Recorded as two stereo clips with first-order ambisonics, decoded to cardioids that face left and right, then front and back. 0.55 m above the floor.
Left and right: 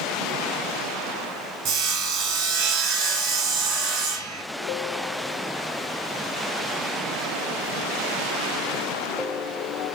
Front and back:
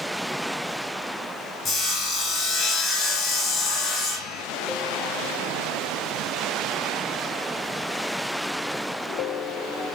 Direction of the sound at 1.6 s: 60° right.